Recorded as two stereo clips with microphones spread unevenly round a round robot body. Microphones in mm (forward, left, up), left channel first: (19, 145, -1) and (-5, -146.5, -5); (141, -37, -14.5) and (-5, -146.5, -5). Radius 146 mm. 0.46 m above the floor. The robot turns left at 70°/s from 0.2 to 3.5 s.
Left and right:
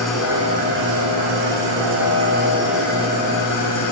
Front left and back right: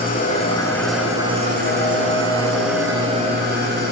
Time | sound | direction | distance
0.0 | an engine running | 5° right | 7.5 m